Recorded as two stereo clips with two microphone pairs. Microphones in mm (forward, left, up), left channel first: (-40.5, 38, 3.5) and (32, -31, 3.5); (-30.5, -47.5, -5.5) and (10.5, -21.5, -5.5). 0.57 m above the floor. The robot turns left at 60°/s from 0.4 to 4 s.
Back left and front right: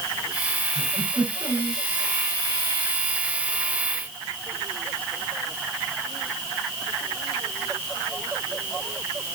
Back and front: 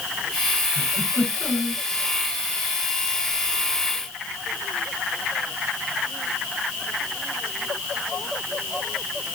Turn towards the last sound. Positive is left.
turn(degrees=135)